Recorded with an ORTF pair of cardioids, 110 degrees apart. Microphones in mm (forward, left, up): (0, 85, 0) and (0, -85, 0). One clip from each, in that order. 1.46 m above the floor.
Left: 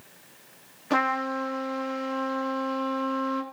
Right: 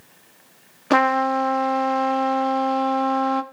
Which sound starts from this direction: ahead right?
A trumpet, at 0.9 s.